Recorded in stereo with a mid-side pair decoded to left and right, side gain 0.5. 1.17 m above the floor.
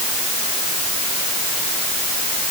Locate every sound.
Only background noise.